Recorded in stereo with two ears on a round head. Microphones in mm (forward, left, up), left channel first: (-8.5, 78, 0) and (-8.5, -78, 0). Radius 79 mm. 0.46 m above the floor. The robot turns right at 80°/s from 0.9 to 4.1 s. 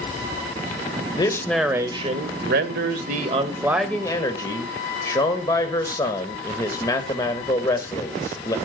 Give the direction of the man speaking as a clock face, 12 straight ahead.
7 o'clock.